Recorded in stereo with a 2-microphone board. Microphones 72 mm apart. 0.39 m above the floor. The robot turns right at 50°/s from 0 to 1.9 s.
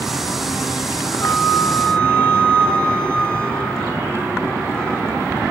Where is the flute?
130° left, 3.5 m; by 5.5 s 165° left, 3.5 m.